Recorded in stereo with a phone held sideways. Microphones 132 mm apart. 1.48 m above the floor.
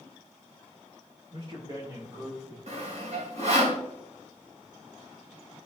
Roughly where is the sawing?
Right.